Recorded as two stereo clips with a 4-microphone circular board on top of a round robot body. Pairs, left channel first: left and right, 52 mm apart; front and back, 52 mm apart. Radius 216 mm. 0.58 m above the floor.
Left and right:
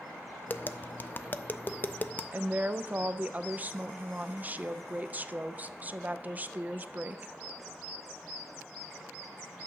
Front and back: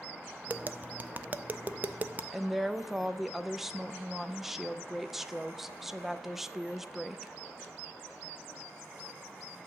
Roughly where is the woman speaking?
Right.